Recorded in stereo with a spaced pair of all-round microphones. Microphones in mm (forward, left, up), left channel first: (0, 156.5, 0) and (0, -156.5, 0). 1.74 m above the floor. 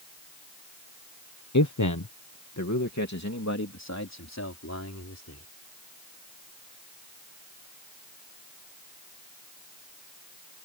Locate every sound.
1.5 s a man speaking: 70° left (ahead or behind); by 5.5 s 60° left (ahead or behind)